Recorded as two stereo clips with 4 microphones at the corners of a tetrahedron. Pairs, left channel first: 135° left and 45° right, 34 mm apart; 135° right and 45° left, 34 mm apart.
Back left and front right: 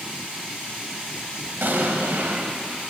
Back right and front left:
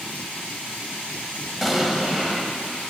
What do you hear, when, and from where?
1.6 s an explosion: 40° right, 0.9 m